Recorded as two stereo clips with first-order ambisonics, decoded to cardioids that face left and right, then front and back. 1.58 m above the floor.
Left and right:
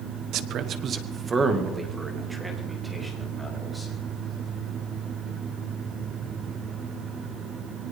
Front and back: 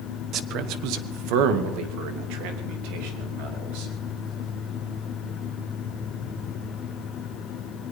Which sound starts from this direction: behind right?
A man speaking, at 0.3 s.